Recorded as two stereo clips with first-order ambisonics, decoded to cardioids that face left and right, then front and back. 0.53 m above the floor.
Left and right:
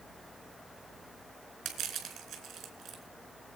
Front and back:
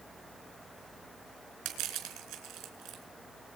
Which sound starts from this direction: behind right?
Crushing, at 1.6 s.